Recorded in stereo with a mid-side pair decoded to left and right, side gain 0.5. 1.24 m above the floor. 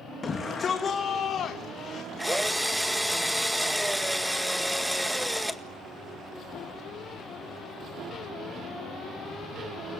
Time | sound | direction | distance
0.2 | a shout | 35° left | 2 m
2.2 | a drill | straight ahead | 1.8 m